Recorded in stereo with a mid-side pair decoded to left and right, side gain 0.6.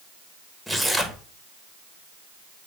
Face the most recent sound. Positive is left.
turn(degrees=-5)